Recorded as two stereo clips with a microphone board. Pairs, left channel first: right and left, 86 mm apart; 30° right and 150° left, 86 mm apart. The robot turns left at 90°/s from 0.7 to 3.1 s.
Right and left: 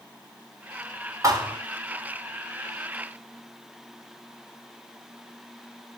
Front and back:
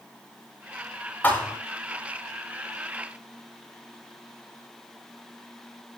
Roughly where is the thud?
Ahead left.